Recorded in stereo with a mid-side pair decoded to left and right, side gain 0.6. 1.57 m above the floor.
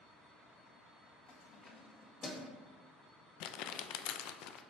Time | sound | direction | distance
1.3 | keys jangling | 60° left | 1.6 m
3.4 | crumpling | 70° left | 0.5 m